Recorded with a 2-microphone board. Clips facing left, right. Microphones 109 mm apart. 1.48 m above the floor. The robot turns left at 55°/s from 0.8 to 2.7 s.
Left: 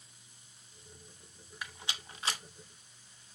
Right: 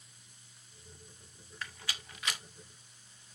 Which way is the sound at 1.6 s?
15° left (ahead or behind).